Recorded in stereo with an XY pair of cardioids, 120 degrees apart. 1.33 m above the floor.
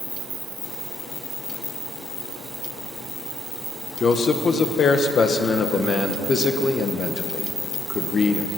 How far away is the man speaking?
About 1.1 m.